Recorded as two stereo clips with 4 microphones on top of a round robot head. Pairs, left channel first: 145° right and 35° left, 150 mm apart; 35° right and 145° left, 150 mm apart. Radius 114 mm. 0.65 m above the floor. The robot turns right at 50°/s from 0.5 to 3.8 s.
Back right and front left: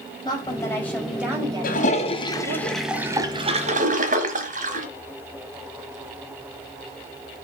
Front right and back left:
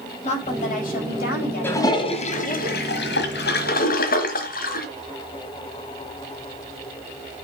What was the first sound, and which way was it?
A woman speaking, 85° right.